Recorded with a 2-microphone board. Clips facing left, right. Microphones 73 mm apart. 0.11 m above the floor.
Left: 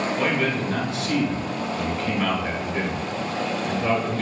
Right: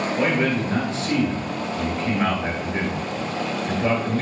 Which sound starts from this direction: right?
A man speaking, at 0.2 s.